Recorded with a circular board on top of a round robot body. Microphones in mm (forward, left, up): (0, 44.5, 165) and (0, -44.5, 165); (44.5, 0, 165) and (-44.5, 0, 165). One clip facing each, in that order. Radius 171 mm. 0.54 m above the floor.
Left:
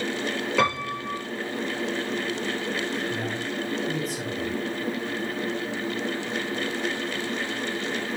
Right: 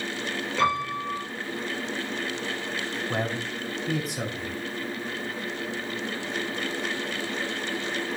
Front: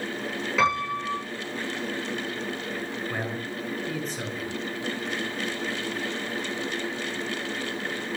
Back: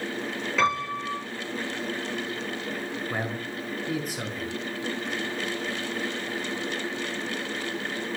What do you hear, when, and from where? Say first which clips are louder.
0.6 s a piano: right 1 dB, front 1 dB; 85° left, 8.5 m
3.1 s a man speaking: even, even; 100° right, 5 m